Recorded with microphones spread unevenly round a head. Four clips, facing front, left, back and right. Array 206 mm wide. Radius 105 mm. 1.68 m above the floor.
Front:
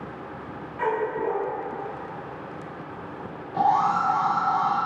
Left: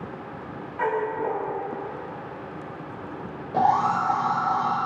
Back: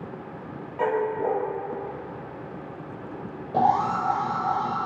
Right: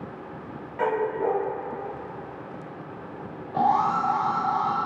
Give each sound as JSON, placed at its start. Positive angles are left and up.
{"t": 0.8, "sound": "a dog barking", "azimuth_deg": -150, "distance_m": 4.0}
{"t": 3.5, "sound": "an alarm", "azimuth_deg": 150, "distance_m": 7.0}